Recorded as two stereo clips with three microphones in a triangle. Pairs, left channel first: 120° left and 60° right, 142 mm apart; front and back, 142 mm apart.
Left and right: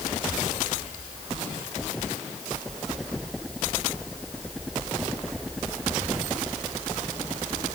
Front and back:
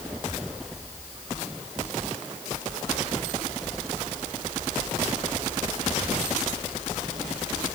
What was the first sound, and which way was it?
Only background noise.